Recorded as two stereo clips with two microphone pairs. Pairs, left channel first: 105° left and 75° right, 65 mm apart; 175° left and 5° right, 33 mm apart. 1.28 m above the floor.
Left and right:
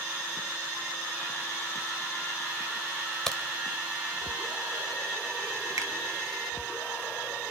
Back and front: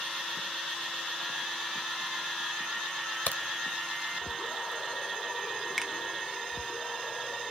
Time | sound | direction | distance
3.3 | a crack | 175° right | 2.5 m
5.8 | a finger snap | 100° right | 2.0 m